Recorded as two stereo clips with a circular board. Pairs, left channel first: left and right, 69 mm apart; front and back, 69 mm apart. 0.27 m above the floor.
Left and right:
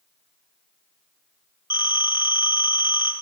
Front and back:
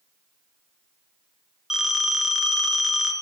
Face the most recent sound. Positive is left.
turn(degrees=95)